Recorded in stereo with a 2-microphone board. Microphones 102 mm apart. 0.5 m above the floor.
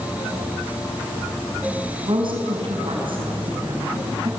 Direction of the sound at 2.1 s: 55° right (ahead or behind).